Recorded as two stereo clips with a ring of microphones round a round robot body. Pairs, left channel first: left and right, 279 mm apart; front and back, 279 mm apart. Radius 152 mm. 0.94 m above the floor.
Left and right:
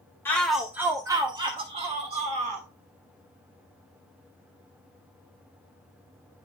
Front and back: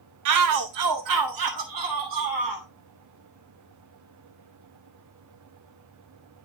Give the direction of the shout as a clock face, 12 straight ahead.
6 o'clock.